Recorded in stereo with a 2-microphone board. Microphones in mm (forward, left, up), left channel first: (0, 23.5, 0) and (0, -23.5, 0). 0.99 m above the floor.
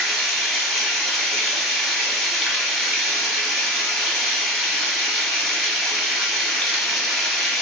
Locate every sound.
0.0 s running water: 5° left (ahead or behind), 1.3 m